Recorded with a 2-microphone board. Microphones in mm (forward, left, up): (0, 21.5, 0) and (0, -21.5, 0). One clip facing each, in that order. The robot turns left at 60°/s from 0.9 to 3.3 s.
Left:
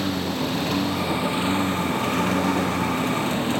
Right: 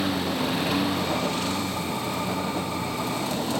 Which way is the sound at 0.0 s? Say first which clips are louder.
Even; 175° right.